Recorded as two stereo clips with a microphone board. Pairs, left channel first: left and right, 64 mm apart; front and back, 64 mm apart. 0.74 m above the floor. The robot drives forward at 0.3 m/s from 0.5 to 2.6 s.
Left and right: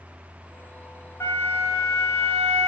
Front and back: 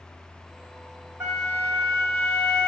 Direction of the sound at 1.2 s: 140° left.